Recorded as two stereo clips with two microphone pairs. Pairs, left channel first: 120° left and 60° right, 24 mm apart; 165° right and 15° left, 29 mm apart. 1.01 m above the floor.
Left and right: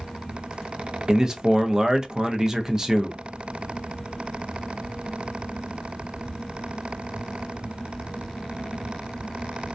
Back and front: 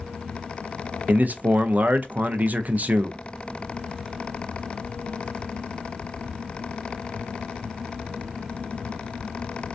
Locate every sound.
1.1 s a man speaking: 5° left, 0.5 m